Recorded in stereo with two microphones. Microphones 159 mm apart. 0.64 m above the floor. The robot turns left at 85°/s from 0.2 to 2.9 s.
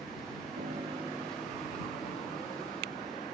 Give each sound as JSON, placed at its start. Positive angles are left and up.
{"t": 0.6, "sound": "a piano", "azimuth_deg": -120}